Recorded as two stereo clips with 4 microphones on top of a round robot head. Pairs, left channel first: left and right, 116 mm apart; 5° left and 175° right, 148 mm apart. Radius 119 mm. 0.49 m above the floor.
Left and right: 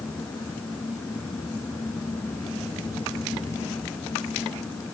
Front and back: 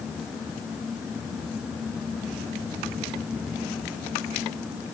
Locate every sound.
Only background noise.